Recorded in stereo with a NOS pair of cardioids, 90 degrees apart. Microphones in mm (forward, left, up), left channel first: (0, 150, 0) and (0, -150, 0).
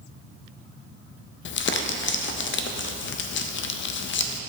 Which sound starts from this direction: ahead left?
Crumpling, at 1.4 s.